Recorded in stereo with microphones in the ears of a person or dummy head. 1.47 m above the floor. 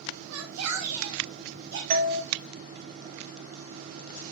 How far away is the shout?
About 1.7 m.